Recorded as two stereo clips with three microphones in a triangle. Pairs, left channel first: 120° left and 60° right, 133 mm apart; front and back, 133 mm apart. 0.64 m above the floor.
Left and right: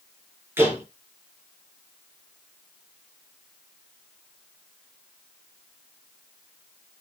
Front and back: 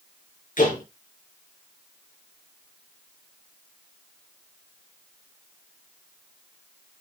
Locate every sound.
0.6 s a door slam: 15° left, 7 m